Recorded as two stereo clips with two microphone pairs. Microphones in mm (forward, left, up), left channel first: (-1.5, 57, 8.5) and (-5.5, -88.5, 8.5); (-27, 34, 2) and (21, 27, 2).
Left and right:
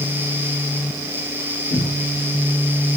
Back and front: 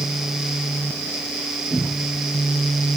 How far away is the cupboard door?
About 1.4 m.